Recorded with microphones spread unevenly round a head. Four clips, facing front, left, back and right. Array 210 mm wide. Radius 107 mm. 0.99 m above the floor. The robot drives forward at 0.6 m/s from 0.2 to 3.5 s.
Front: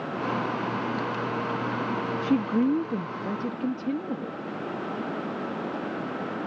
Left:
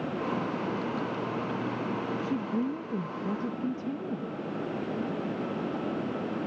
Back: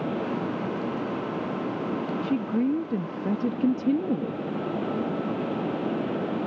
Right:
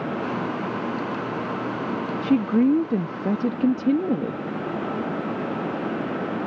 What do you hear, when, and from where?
2.2 s a woman speaking: 65° right; by 4.4 s 110° right